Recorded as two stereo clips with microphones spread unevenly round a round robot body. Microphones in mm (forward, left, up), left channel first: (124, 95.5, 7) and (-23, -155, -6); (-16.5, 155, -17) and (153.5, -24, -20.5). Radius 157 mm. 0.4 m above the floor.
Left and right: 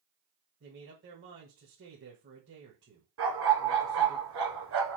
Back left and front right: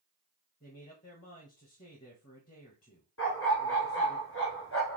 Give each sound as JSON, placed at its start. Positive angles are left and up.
{"t": 0.6, "sound": "a man speaking", "azimuth_deg": -165, "distance_m": 1.5}
{"t": 3.2, "sound": "a dog barking", "azimuth_deg": -175, "distance_m": 1.8}